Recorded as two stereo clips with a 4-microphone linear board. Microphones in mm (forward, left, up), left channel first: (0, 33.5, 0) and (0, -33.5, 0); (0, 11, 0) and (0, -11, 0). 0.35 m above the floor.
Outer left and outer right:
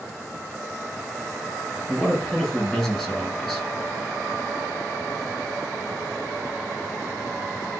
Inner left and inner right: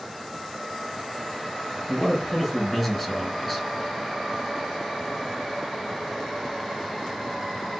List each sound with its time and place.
1.9 s a man speaking: 5° left (ahead or behind), 2.5 m